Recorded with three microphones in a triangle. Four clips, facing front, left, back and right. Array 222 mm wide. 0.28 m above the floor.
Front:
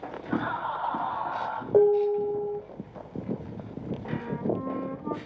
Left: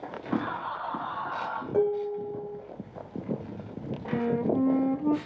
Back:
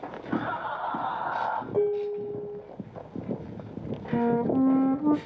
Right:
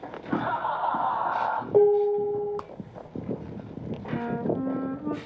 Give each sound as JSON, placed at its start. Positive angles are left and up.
{"t": 0.3, "sound": "laughter", "azimuth_deg": -85, "distance_m": 2.5}
{"t": 1.7, "sound": "dishes clattering", "azimuth_deg": -25, "distance_m": 9.5}
{"t": 4.1, "sound": "a flute", "azimuth_deg": 160, "distance_m": 1.0}